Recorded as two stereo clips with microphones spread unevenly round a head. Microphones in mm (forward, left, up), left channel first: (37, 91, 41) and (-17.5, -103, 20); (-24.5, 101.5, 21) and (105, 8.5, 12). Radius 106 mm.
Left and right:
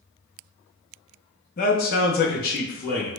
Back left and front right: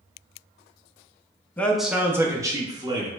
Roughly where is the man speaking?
Left.